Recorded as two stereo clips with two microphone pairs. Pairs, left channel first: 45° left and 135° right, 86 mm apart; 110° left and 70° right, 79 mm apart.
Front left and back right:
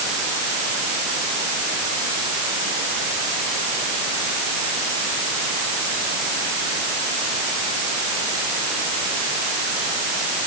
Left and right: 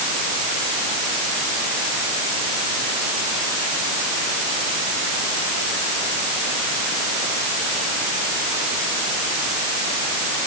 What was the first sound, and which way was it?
Only background noise.